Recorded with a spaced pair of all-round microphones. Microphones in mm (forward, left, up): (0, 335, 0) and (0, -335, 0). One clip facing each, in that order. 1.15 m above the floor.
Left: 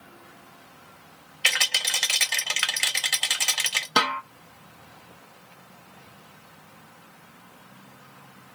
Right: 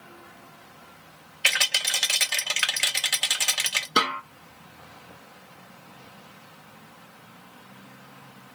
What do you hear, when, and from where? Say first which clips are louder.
1.4 s a rattle: even; 5° right (ahead or behind), 0.6 m
4.0 s a snare drum: even; 25° left (ahead or behind), 0.7 m